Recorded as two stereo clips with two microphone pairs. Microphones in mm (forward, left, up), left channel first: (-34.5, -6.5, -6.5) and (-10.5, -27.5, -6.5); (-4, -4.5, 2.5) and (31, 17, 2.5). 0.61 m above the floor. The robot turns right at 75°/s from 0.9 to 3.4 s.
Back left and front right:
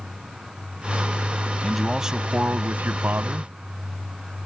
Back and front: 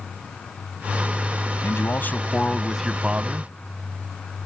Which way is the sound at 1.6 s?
140° right.